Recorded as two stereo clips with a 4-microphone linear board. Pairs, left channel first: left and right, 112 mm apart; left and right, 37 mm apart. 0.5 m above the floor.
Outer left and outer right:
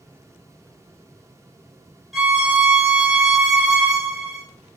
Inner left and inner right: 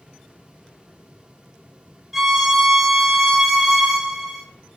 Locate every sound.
2.1 s a violin: centre (ahead or behind), 0.6 m